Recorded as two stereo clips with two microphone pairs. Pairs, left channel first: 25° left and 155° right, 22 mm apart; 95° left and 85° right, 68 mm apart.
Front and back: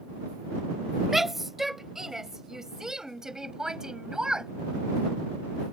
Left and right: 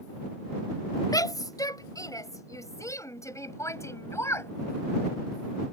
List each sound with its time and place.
1.1 s a shout: 125° left; by 4.5 s 145° left